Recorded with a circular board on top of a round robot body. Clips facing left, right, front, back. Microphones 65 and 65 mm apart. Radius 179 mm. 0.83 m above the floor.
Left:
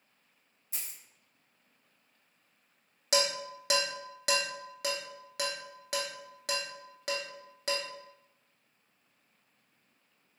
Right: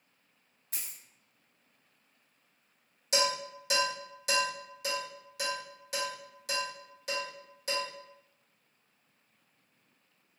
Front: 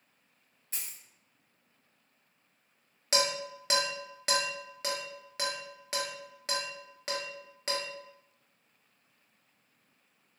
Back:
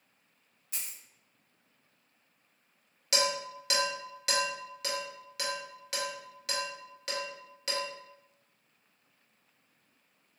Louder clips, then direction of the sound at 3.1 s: Even, even; 60° left.